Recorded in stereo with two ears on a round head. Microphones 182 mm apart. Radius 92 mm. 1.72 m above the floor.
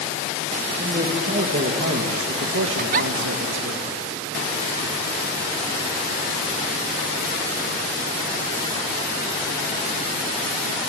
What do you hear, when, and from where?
0.8 s a man speaking: 30° right (ahead or behind), 2 m; by 3.8 s 60° right (ahead or behind), 2 m
2.8 s a giggle: 40° right (ahead or behind), 0.5 m